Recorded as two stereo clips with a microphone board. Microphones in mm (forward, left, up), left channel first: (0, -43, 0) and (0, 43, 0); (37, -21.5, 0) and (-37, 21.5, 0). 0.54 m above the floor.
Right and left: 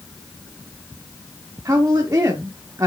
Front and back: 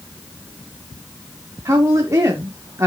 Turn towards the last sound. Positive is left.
turn(degrees=120)